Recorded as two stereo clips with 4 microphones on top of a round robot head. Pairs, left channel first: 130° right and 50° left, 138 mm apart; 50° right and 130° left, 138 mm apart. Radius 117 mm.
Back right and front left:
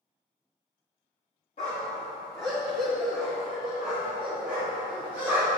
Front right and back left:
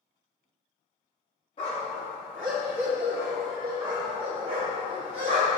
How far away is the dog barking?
About 1.1 m.